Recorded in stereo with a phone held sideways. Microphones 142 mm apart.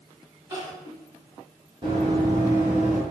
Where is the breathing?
No breathing in this recording.